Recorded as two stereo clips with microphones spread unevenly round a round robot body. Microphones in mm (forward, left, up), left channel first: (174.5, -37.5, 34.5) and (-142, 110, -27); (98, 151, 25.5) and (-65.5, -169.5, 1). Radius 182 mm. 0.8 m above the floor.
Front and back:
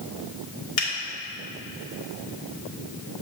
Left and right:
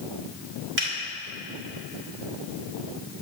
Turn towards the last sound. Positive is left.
turn(degrees=-60)